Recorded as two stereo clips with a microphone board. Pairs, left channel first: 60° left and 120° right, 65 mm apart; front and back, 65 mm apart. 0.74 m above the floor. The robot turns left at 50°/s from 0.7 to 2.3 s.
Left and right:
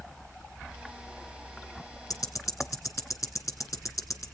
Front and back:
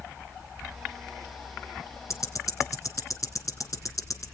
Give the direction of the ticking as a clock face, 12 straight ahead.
11 o'clock.